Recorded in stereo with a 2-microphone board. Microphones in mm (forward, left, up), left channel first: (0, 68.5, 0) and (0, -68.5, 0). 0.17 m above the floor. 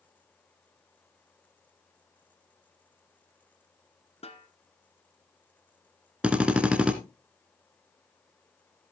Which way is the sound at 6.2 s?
10° right (ahead or behind).